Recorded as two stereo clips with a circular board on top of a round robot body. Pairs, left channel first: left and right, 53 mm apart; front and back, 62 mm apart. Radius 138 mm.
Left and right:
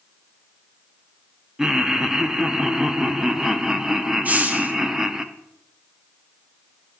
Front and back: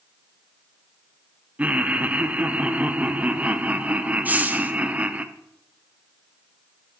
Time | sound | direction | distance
1.6 | laughter | 155° right | 0.8 m
4.2 | a hiss | 130° right | 1.2 m